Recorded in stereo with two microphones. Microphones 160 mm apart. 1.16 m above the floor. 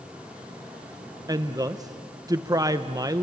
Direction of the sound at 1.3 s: 25° right (ahead or behind).